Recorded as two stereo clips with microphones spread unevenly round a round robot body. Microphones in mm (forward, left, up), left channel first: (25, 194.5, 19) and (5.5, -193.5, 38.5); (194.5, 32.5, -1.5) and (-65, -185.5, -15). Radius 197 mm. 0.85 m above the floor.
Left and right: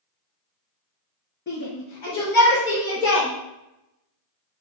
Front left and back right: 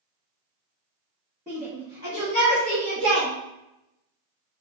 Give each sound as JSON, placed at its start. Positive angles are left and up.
{"t": 1.5, "sound": "a shout", "azimuth_deg": 145, "distance_m": 1.3}